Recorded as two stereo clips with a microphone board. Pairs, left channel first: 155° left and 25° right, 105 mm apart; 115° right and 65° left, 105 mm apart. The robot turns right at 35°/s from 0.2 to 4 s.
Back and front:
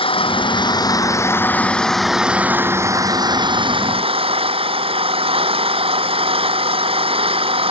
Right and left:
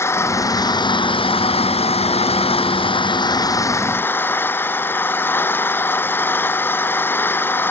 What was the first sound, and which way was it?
An engine running, 175° right.